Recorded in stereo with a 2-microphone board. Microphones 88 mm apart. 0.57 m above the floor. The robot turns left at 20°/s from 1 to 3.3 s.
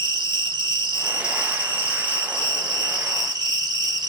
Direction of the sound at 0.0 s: 75° right.